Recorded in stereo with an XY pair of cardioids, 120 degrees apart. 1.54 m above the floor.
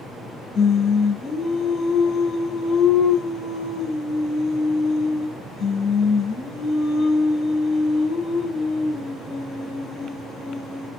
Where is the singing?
65° left, 1.3 m.